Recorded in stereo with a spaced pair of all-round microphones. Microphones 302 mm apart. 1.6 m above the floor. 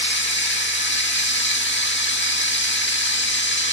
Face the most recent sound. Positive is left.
turn(degrees=35)  # may be behind; listen again after turning